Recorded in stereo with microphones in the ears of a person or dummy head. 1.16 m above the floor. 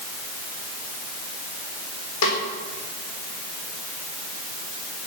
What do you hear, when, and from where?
2.2 s a snare drum: 70° left (ahead or behind), 4.5 m